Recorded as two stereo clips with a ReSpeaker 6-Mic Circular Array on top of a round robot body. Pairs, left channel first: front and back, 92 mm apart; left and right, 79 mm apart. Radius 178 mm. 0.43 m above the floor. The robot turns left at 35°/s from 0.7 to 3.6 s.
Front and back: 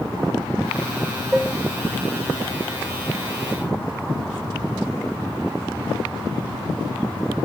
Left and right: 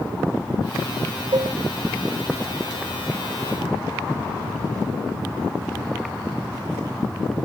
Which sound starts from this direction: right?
Dishes clattering, at 1.3 s.